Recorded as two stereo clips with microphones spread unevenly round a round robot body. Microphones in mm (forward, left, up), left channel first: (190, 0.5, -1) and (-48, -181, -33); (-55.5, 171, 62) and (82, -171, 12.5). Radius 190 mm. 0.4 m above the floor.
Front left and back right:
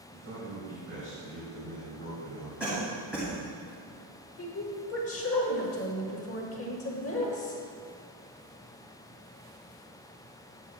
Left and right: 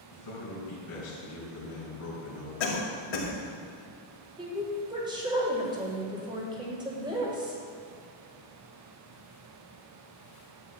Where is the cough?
125° left, 2.5 m.